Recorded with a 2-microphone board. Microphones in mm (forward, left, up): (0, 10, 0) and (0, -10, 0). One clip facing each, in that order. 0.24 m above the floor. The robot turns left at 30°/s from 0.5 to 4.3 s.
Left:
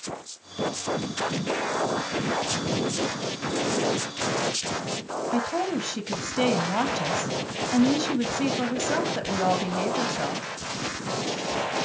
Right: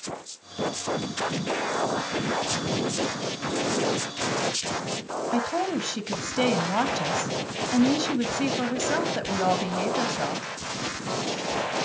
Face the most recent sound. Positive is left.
turn(degrees=-10)  # may be behind; listen again after turning